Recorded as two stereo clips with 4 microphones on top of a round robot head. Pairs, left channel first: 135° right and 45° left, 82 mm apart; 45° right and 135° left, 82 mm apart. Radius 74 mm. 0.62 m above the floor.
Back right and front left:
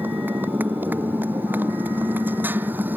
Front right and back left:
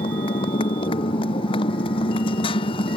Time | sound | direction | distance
0.0 | a motorcycle | 25° right | ?